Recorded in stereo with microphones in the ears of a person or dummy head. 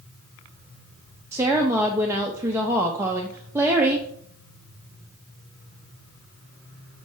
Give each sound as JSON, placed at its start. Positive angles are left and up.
{"t": 1.3, "sound": "a woman speaking", "side_deg": -10, "distance_m": 0.6}